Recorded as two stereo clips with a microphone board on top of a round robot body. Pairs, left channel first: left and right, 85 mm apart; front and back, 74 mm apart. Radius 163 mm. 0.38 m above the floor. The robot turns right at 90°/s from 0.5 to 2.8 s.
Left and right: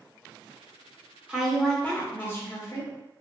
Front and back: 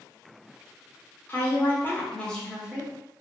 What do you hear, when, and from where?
1.3 s a woman speaking: 25° right, 1.2 m; by 2.9 s 115° left, 1.2 m